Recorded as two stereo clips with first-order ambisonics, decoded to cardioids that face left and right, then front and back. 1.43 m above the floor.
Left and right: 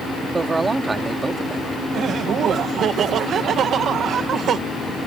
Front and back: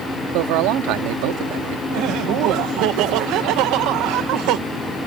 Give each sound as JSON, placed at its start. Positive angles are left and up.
{"t": 0.3, "sound": "a man speaking", "azimuth_deg": -170}
{"t": 1.9, "sound": "laughter", "azimuth_deg": -150}